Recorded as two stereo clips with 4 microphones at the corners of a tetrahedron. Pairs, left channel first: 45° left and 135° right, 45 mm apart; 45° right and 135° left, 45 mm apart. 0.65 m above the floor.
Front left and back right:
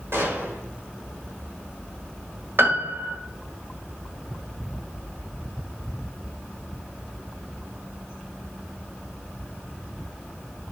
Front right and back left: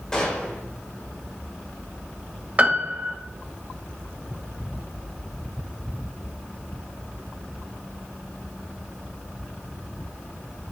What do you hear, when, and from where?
0.1 s a gunshot: 120° right, 3.5 m
2.6 s a piano: 165° right, 1.4 m